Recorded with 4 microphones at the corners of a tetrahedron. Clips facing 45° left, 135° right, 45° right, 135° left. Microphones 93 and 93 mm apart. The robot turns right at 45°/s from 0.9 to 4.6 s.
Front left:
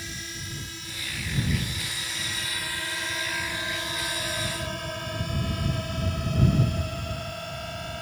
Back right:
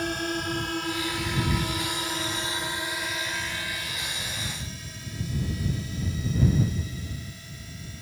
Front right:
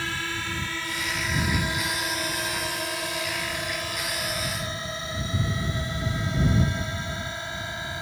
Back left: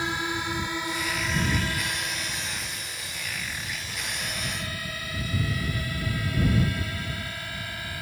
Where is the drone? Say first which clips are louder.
Back right 12 dB, back left 3 dB; 155° right; by 8.0 s 20° left.